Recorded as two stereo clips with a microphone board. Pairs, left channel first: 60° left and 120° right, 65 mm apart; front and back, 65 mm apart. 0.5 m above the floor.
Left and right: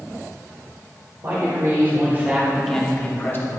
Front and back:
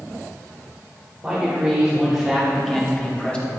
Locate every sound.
1.2 s a man speaking: 105° right, 2 m; by 3.5 s 65° left, 1.6 m